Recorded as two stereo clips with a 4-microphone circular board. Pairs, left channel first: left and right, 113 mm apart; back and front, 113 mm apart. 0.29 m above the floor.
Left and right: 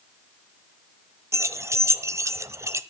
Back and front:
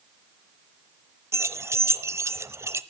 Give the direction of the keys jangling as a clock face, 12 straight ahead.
2 o'clock.